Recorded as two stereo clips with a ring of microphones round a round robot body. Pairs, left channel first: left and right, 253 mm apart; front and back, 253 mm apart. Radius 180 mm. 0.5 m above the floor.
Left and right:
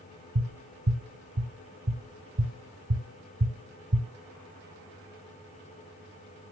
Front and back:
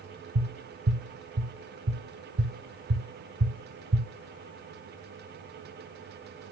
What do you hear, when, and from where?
0.3 s tapping: 145° right, 2.5 m